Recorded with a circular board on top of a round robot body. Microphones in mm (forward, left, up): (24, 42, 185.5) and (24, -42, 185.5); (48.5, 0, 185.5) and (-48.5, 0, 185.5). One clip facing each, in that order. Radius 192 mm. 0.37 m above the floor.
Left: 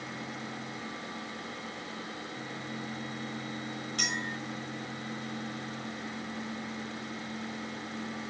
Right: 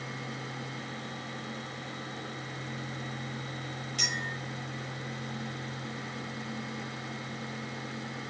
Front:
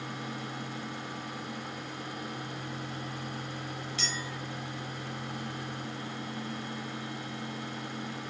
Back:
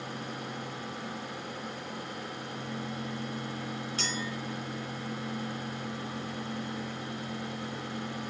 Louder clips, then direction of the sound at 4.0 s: Left 1 dB, back 3 dB; 140° left.